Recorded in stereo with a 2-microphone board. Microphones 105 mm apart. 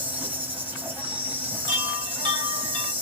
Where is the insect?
15° right (ahead or behind), 1.9 m.